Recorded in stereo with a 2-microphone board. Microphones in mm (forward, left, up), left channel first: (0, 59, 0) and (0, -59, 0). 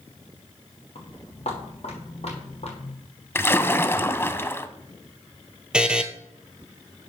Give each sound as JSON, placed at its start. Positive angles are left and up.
{"t": 0.9, "sound": "footsteps", "side_deg": 55, "distance_m": 5.5}
{"t": 3.4, "sound": "a splash", "side_deg": 20, "distance_m": 0.6}
{"t": 5.7, "sound": "a buzzer", "side_deg": -5, "distance_m": 0.9}